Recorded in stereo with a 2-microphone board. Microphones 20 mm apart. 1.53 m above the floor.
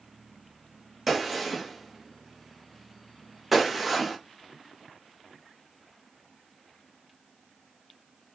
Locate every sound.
1.1 s a gunshot: 5° right (ahead or behind), 0.9 m